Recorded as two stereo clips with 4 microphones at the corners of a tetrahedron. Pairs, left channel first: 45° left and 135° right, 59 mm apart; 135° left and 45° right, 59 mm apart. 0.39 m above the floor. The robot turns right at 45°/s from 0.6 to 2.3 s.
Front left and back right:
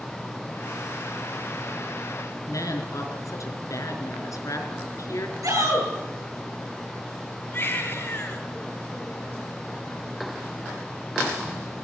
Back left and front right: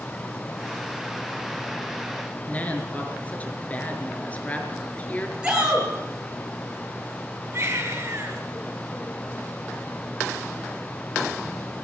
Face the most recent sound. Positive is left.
turn(degrees=-5)